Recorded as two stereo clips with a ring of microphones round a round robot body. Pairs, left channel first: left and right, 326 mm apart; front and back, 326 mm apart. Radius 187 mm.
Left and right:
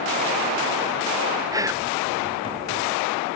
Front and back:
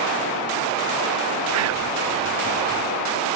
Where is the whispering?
165° right, 1.4 m.